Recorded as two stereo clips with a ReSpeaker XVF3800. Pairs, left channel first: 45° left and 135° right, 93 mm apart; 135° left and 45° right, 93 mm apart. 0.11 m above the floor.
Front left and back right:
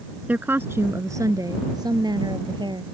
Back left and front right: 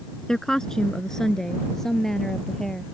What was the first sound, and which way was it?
A woman speaking, 155° right.